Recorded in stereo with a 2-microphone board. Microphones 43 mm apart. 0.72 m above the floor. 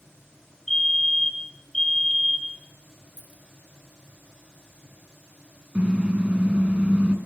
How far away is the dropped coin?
About 3 m.